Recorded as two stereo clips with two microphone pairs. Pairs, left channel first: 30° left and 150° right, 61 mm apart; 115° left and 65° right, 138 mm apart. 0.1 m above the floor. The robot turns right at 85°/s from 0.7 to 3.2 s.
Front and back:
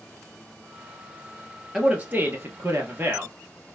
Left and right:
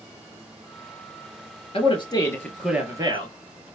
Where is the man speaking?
130° left, 1.5 m; by 3.3 s 105° right, 1.5 m.